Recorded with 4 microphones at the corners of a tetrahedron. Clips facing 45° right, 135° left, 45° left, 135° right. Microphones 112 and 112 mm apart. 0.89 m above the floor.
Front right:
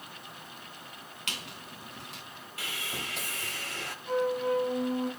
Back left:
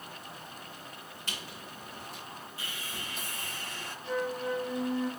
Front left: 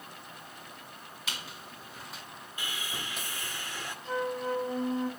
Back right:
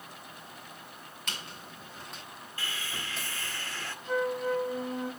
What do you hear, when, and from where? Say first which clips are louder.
1.3 s a squeak: front right 1 dB, even; 40° right, 2.5 m
2.6 s sawing: front right 6 dB, even; 30° right, 1.3 m
4.0 s a flute: front right 5 dB, back right 3 dB; 10° right, 2.5 m